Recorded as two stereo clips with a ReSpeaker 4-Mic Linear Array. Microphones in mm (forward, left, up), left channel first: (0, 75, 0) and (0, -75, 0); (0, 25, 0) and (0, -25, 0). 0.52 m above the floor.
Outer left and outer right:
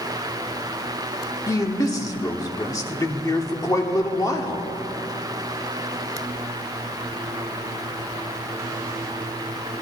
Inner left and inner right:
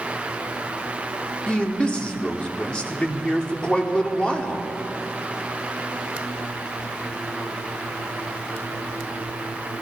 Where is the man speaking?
25° left (ahead or behind), 1.2 m.